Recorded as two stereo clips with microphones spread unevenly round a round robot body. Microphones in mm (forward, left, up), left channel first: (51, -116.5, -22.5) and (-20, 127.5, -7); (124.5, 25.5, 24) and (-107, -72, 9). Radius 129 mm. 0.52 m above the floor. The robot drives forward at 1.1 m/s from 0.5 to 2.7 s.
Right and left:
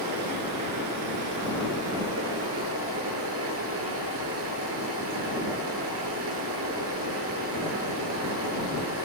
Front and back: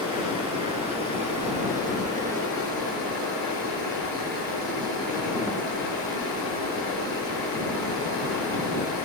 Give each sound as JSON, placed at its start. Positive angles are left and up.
{"t": 0.0, "sound": "running water", "azimuth_deg": 130, "distance_m": 7.0}